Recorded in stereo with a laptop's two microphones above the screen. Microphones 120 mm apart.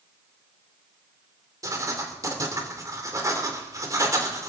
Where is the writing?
30° right (ahead or behind), 3 m.